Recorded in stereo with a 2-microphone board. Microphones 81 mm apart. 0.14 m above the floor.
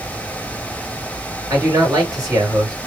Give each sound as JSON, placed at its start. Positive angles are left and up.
{"t": 1.5, "sound": "a man speaking", "side_deg": -45, "distance_m": 2.5}